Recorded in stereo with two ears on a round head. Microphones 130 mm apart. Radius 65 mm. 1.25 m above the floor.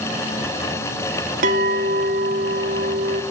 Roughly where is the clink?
Right.